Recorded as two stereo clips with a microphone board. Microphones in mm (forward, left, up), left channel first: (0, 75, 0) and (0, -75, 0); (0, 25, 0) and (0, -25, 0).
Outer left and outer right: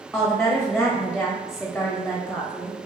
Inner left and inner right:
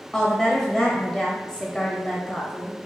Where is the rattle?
I don't hear a rattle.